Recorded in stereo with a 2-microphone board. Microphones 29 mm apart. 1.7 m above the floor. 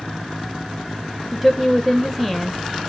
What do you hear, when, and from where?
1.3 s a woman speaking: 5° right (ahead or behind), 0.5 m